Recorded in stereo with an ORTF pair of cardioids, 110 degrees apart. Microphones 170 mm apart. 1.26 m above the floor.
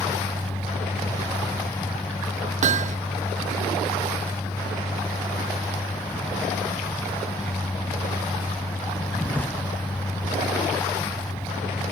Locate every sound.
0.0 s a vehicle: 10° left
2.6 s hammering: 45° right